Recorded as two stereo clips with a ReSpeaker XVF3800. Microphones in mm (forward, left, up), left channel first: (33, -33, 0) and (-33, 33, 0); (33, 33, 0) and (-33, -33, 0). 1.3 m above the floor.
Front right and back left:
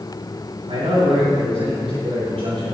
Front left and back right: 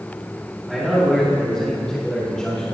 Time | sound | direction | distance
0.7 | a man speaking | 140° left | 4.5 m